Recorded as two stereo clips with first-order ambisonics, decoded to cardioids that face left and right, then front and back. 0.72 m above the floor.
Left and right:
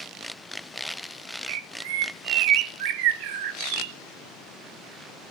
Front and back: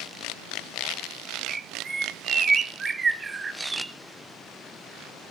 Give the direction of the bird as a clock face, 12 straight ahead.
4 o'clock.